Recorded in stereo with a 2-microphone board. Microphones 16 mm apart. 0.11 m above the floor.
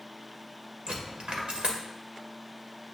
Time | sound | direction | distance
0.9 | a dropped coin | 85° right | 1.9 m